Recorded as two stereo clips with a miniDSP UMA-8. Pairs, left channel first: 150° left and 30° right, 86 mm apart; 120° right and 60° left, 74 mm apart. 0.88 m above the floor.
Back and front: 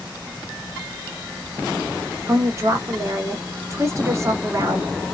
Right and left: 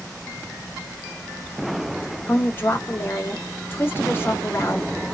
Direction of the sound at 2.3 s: 70° right.